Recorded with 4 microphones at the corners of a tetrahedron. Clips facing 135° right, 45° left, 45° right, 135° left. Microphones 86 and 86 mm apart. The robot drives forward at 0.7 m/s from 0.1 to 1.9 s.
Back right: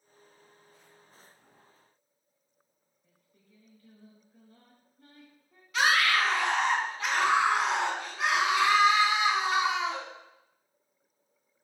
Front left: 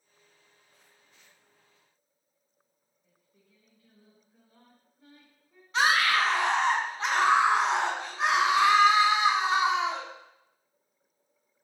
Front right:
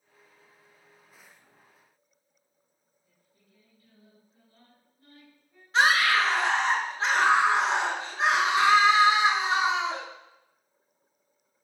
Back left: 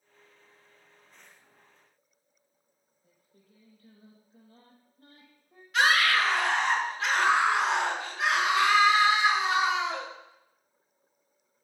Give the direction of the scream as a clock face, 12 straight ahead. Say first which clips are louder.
Front left 1 dB, front right 2 dB; 12 o'clock.